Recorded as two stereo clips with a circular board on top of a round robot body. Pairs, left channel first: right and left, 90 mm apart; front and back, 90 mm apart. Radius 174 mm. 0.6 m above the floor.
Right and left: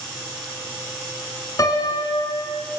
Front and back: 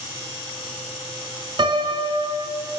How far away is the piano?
About 2.5 m.